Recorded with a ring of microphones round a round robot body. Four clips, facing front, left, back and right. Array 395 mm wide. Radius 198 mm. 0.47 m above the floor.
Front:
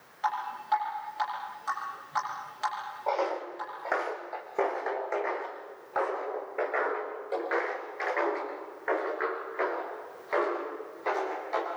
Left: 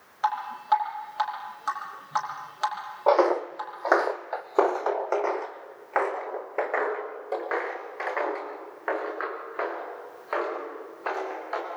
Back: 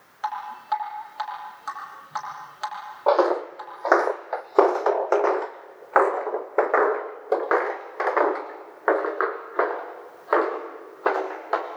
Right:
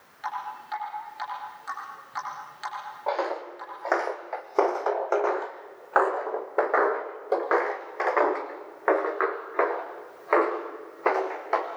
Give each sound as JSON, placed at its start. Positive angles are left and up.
{"t": 0.2, "sound": "dripping", "azimuth_deg": 110, "distance_m": 8.0}
{"t": 3.1, "sound": "footsteps", "azimuth_deg": 140, "distance_m": 1.3}